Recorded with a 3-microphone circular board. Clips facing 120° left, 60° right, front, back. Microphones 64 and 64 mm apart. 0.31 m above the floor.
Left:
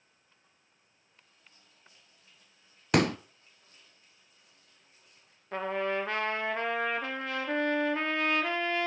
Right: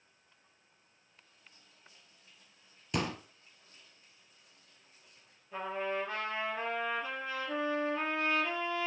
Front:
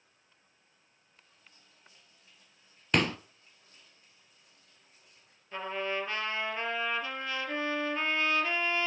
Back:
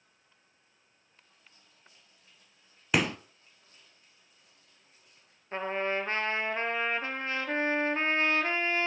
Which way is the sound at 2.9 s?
95° left.